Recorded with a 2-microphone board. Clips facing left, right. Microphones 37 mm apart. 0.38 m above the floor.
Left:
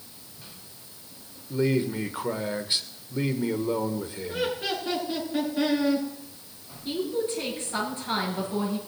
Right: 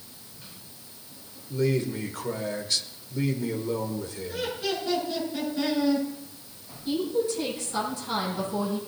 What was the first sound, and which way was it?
A man speaking, 20° left (ahead or behind).